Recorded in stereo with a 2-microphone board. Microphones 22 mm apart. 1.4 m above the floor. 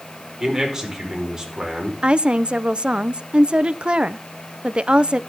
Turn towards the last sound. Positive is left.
turn(degrees=-55)  # may be behind; listen again after turning